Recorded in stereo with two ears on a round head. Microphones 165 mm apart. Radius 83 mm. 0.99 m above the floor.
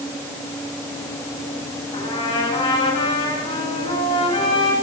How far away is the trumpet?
About 9 m.